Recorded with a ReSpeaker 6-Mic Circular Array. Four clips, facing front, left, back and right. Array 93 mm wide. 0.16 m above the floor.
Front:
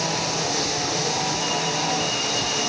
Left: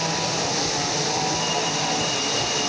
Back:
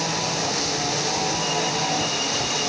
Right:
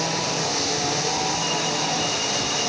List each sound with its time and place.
Only background noise.